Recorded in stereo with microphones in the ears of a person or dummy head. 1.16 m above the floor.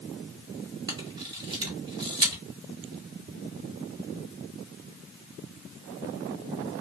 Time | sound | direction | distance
0.9 | a camera shutter | 25° right (ahead or behind) | 1.2 m